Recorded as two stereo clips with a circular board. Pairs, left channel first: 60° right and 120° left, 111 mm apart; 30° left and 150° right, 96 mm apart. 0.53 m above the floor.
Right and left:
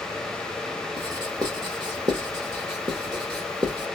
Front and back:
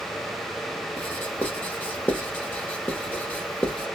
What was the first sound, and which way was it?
Writing, 95° left.